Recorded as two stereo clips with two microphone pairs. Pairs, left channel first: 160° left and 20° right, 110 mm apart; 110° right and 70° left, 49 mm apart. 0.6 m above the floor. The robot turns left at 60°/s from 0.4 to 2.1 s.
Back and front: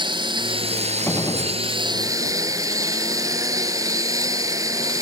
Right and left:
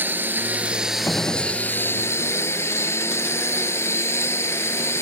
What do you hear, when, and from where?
0.0 s a lawn mower: 25° left; by 5.0 s 75° right
1.1 s a gunshot: 130° right; by 1.6 s 160° right